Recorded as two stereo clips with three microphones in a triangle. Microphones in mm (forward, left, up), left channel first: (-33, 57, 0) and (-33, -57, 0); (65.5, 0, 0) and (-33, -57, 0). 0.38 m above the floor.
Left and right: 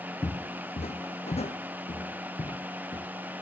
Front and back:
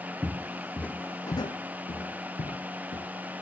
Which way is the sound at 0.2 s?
140° left.